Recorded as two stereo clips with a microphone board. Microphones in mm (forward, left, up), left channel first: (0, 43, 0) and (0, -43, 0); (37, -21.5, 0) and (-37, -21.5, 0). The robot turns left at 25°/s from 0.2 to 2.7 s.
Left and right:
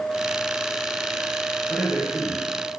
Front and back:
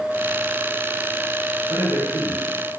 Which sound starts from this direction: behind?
A man speaking, at 1.7 s.